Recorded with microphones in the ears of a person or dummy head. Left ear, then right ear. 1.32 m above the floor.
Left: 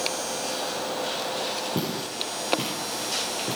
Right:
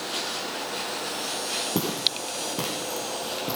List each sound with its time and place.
1.8 s footsteps: 65° right (ahead or behind), 4 m; by 3.6 s 60° right (ahead or behind), 2.5 m